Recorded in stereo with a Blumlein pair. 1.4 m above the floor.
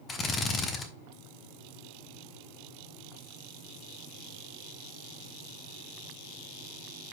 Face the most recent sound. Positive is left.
turn(degrees=20)